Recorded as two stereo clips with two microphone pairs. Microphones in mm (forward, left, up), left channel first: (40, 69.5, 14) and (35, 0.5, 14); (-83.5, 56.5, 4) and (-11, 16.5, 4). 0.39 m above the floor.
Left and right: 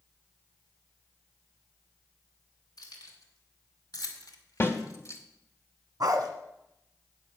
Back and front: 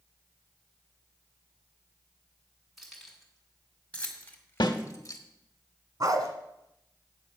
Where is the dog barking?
65° right, 1.4 m.